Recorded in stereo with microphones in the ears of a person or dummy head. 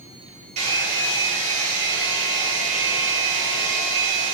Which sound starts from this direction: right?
A hair dryer, at 0.6 s.